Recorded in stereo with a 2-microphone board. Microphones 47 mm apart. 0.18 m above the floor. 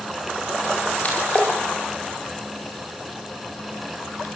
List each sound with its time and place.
1.0 s a splash: 35° left (ahead or behind), 10 m